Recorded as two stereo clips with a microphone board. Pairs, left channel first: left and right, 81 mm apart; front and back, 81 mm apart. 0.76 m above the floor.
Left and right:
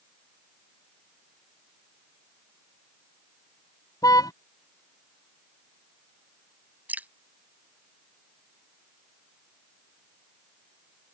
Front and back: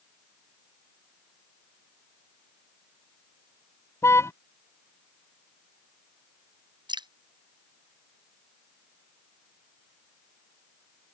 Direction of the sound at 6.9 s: 160° right.